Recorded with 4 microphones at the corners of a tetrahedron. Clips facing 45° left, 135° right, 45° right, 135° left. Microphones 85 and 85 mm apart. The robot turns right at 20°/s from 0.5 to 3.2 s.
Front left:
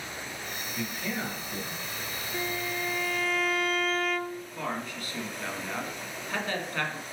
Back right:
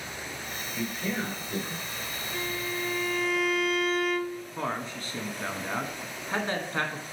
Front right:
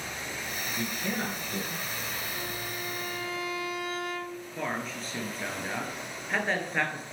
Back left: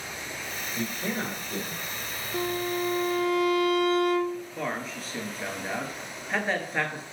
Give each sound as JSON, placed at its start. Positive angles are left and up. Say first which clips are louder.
{"t": 0.8, "sound": "a man speaking", "louder": "back right 3 dB, back left 2 dB", "azimuth_deg": 175, "distance_m": 2.0}
{"t": 2.3, "sound": "a violin", "louder": "front left 1 dB, back left 8 dB", "azimuth_deg": 125, "distance_m": 0.7}
{"t": 4.6, "sound": "a man speaking", "louder": "back right 2 dB, back left 1 dB", "azimuth_deg": -140, "distance_m": 1.1}